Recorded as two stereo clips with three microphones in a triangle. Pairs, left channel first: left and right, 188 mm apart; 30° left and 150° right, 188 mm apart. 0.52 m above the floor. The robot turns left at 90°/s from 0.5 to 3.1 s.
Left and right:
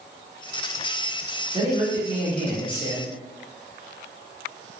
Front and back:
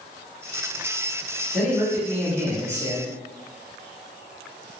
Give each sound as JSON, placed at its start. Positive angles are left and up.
{"t": 1.5, "sound": "a man speaking", "azimuth_deg": -65, "distance_m": 1.3}